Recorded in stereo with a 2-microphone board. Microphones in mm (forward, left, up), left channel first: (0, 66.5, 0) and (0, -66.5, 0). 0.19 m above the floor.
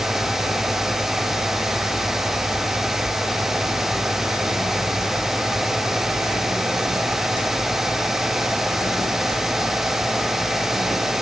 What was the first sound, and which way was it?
Only background noise.